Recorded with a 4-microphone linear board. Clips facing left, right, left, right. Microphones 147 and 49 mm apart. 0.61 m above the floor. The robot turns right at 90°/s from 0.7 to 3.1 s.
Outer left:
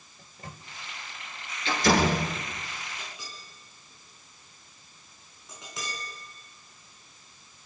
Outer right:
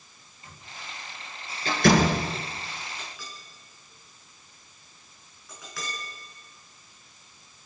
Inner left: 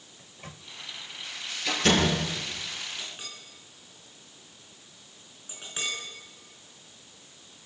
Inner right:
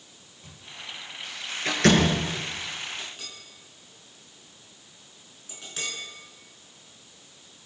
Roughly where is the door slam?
Right.